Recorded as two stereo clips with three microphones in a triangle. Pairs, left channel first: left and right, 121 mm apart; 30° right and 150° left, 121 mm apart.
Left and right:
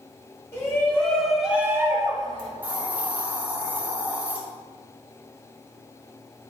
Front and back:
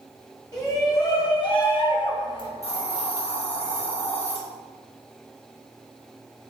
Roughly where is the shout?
Ahead left.